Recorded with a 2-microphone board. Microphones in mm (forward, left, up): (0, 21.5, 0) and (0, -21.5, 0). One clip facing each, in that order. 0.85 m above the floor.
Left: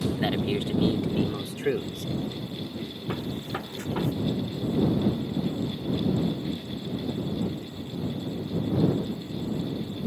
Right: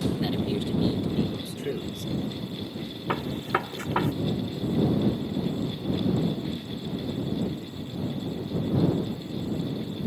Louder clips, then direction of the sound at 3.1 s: Right 6 dB; 70° right (ahead or behind).